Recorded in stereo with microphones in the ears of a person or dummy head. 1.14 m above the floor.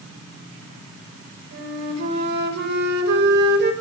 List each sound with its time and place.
1.5 s a flute: 65° right (ahead or behind), 5.5 m